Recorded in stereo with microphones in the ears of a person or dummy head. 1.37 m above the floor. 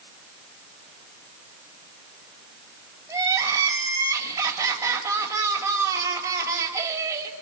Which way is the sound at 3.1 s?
15° right (ahead or behind).